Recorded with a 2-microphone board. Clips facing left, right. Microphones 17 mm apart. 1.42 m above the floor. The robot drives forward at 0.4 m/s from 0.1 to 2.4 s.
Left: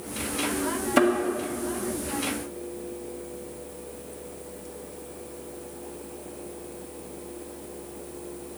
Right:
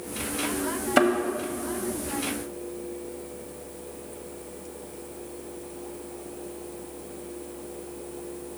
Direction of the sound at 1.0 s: 20° right (ahead or behind).